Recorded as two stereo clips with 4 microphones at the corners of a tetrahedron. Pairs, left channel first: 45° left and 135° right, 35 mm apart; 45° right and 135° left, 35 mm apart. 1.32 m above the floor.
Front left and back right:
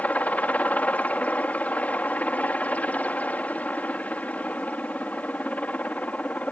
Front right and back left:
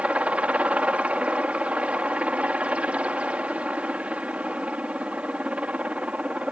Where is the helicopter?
85° left.